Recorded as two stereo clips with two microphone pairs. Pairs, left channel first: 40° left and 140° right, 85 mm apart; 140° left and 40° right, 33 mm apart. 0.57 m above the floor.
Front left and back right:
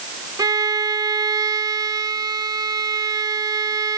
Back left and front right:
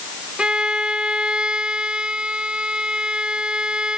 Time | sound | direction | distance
0.4 | a violin | 95° right | ?